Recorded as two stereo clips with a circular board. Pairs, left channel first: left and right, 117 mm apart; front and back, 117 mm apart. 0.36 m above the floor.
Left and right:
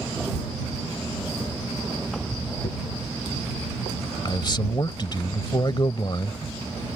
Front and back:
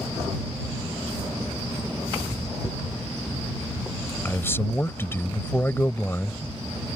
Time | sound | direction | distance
2.6 | a dropped coin | 75° left | ?
4.2 | a man speaking | 60° left | ?